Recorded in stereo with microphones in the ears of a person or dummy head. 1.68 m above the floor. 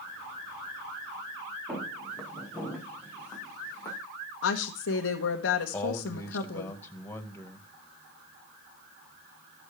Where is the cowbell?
I don't hear a cowbell.